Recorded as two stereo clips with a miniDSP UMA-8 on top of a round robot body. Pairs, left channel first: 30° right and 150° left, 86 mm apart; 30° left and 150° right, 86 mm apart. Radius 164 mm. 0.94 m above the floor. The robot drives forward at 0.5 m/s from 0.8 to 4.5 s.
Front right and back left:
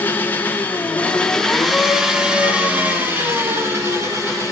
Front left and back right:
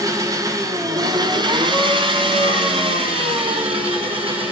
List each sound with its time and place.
0.0 s an engine running: 100° right, 1.1 m; by 4.5 s 150° right, 2.5 m